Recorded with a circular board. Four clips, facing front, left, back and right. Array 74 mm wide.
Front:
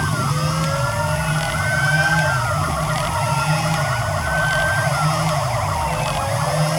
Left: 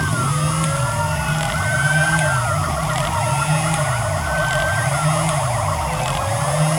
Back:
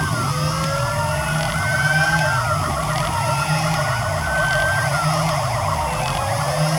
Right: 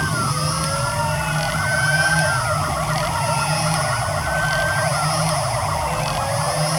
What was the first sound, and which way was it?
Only background noise.